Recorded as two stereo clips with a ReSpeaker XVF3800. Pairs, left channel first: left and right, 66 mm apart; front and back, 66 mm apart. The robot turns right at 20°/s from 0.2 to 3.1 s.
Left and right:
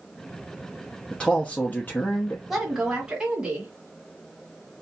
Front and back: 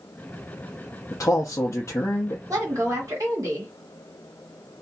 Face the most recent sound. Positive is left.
turn(degrees=-165)